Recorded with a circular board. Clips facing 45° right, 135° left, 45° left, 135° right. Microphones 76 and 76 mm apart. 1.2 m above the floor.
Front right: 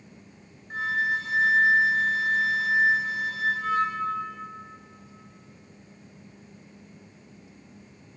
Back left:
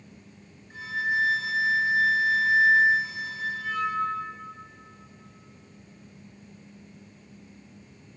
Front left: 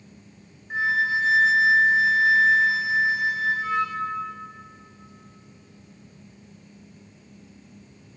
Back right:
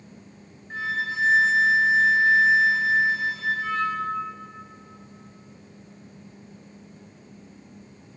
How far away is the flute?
About 1.6 m.